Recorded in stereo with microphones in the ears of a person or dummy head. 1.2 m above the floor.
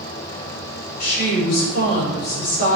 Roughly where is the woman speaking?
Left.